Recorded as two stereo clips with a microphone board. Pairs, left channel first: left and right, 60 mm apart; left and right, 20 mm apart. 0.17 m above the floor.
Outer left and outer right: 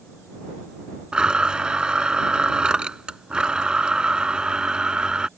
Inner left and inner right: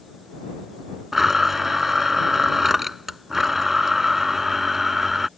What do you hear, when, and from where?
1.1 s a blender: 15° right (ahead or behind)